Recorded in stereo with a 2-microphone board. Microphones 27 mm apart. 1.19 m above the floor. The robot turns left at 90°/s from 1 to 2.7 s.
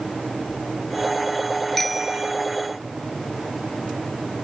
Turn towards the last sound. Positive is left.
turn(degrees=-75)